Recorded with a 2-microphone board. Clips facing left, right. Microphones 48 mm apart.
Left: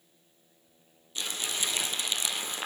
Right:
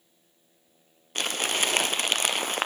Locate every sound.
1.1 s crumpling: 60° right (ahead or behind), 0.6 m